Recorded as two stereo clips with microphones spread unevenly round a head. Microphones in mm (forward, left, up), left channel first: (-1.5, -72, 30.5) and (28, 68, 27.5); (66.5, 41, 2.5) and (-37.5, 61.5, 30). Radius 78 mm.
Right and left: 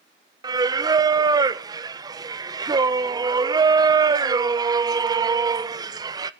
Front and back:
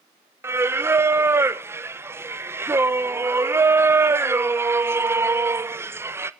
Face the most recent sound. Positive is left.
turn(degrees=95)